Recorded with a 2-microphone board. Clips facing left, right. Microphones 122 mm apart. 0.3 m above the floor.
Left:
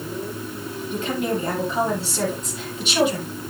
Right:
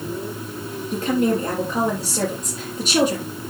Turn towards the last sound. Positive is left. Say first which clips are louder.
# right 5 dB
turn(degrees=-40)  # may be behind; listen again after turning